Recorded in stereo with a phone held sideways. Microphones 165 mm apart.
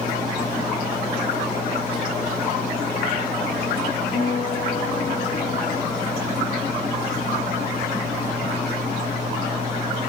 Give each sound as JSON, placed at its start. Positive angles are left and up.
{"t": 4.1, "sound": "a guitar", "side_deg": 50, "distance_m": 6.5}